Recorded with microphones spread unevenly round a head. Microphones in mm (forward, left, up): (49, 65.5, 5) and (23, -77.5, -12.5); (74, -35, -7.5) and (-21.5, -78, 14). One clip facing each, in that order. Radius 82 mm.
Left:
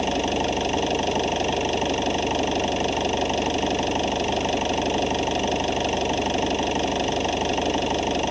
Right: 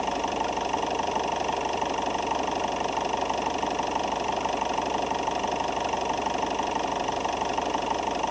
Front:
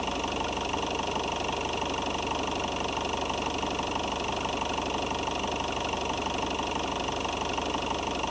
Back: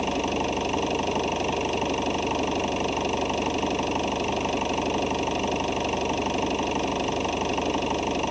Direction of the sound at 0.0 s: 145° left.